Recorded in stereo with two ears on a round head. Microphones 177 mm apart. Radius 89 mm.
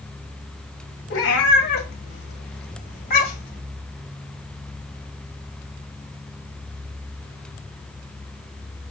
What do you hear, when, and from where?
1.1 s a cat meowing: 60° left (ahead or behind), 2.5 m; by 3.6 s 45° left (ahead or behind), 2.5 m